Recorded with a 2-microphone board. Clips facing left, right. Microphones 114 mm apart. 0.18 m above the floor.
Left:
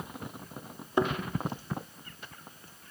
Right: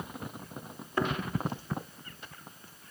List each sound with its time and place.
1.0 s a thud: 20° left (ahead or behind), 2.5 m